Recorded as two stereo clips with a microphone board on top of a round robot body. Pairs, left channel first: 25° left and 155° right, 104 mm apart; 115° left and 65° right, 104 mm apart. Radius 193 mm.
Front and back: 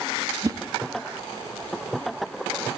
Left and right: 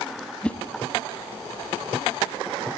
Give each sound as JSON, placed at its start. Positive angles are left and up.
{"t": 0.4, "sound": "a whoosh", "azimuth_deg": -175, "distance_m": 0.9}